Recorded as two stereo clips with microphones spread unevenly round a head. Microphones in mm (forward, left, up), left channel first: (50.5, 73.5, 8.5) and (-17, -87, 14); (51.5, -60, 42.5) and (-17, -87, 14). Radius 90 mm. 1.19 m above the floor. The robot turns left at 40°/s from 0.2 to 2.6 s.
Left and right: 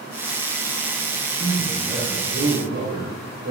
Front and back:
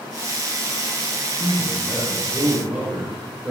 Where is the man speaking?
35° right, 4.5 m; by 3.5 s 80° right, 4.5 m.